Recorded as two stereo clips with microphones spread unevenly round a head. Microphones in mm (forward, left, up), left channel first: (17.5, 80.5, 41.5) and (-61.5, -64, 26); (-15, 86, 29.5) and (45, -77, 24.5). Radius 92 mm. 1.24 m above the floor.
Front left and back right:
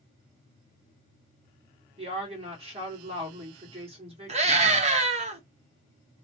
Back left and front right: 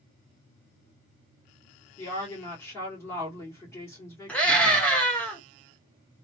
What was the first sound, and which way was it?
A woman speaking, 175° right.